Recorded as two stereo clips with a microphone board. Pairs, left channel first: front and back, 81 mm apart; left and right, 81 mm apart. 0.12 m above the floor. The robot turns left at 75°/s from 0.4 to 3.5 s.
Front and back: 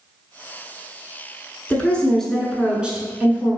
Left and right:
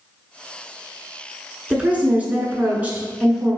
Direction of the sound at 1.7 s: 35° right.